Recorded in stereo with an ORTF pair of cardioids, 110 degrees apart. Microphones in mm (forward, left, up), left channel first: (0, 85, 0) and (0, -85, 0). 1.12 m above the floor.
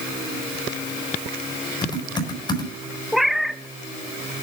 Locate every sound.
1.8 s typing on a keyboard: 25° left, 5.5 m
3.1 s a cat meowing: straight ahead, 1.1 m